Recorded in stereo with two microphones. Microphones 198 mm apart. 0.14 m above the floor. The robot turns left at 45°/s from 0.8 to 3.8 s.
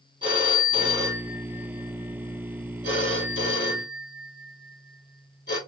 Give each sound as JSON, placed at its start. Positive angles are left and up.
{"t": 0.2, "sound": "a phone ringing", "side_deg": -25, "distance_m": 1.9}